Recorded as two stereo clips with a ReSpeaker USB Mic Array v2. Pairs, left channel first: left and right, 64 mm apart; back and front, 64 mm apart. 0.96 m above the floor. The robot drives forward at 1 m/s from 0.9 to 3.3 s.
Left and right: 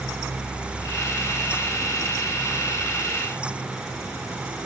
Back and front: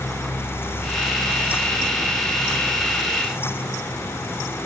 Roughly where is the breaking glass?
No breaking glass in this recording.